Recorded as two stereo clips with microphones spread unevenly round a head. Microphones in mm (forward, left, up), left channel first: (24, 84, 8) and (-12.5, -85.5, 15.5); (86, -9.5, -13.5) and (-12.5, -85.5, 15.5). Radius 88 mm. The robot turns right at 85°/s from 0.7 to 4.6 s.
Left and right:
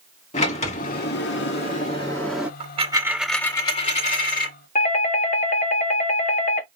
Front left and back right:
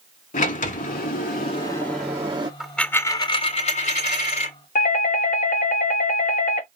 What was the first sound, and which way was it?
A sliding door, 25° left.